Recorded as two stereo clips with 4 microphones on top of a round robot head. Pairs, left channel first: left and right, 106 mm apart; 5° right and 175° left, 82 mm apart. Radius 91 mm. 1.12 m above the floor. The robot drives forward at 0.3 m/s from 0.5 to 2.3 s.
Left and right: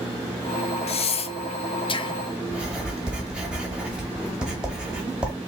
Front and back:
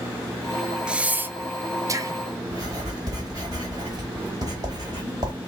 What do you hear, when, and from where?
0.9 s breathing: 95° left, 0.5 m; by 2.2 s 130° left, 0.7 m
2.5 s writing: 165° right, 1.0 m